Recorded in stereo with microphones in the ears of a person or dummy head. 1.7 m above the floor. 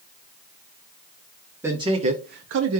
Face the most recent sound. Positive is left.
turn(degrees=-85)